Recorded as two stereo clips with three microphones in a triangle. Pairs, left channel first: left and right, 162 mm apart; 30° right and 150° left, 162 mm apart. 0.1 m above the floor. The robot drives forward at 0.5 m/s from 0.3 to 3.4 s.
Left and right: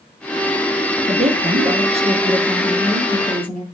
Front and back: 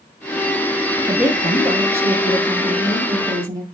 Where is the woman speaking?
130° right, 2.5 m; by 3.6 s 145° right, 3.5 m.